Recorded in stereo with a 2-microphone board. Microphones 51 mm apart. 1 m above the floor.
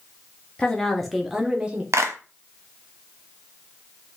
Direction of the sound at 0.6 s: 20° left (ahead or behind).